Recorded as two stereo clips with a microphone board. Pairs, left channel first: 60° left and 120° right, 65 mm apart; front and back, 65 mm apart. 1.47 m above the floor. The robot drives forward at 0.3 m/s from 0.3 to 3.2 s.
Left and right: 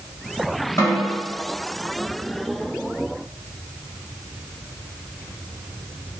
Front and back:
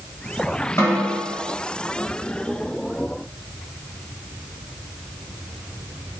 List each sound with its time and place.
0.8 s a snare drum: 40° left, 1.4 m; by 1.3 s 45° left, 1.3 m